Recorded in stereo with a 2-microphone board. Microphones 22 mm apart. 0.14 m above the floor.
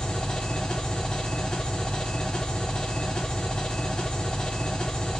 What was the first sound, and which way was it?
An engine running, 35° left (ahead or behind).